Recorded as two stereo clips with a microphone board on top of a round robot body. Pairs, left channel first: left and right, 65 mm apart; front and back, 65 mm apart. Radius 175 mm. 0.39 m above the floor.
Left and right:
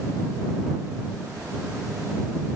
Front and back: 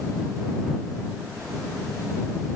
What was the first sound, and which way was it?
Only background noise.